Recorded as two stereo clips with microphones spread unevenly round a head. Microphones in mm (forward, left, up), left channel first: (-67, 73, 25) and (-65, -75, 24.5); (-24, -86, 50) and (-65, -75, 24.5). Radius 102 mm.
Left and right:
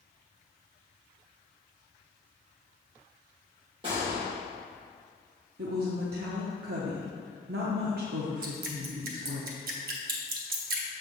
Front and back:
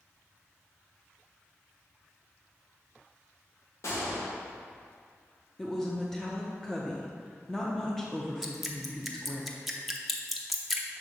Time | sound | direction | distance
3.8 | a gunshot | 25° right | 1.3 m
5.6 | a woman speaking | 90° right | 0.9 m
8.4 | dripping | 100° right | 0.9 m